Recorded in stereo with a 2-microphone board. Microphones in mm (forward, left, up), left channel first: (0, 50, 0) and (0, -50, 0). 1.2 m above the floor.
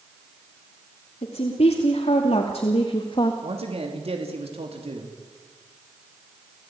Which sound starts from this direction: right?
A man speaking, at 3.4 s.